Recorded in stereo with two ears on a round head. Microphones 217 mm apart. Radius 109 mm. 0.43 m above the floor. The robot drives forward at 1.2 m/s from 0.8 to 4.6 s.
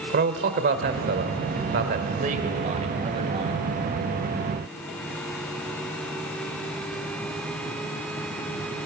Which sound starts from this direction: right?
A man speaking, at 0.1 s.